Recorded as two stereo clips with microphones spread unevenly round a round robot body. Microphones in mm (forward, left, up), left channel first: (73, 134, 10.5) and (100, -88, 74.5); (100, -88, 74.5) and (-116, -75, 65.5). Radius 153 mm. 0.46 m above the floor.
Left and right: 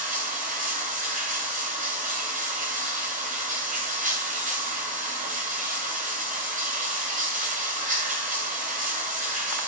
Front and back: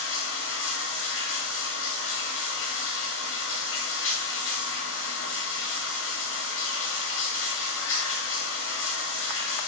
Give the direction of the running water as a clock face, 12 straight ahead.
1 o'clock.